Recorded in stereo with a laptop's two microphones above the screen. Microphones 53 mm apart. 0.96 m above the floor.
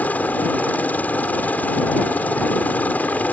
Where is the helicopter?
35° left (ahead or behind).